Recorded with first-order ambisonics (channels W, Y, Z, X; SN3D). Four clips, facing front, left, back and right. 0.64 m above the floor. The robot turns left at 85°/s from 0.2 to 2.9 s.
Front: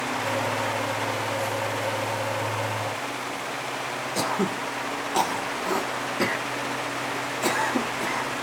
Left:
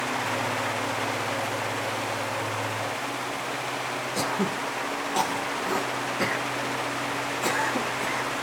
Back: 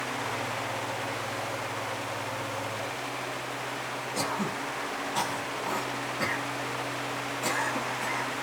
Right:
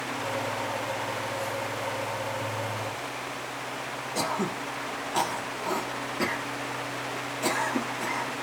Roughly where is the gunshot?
No gunshot in this recording.